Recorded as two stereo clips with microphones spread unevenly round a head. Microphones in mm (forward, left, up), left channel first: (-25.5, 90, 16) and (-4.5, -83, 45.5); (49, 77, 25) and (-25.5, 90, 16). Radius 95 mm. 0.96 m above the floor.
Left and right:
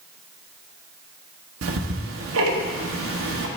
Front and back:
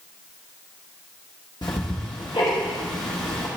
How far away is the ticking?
About 0.8 m.